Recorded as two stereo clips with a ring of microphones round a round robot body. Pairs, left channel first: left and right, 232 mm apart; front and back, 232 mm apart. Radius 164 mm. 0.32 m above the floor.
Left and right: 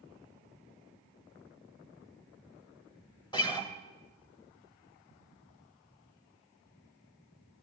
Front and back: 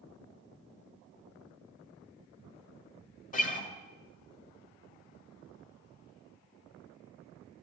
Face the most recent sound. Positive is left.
turn(degrees=30)